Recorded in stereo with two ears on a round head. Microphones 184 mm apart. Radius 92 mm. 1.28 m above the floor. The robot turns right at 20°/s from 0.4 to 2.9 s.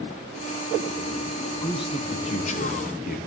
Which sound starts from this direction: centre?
A man speaking, at 1.6 s.